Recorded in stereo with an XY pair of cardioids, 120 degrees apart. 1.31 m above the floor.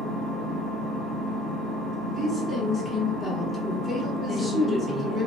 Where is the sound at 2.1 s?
5° left, 1.4 m.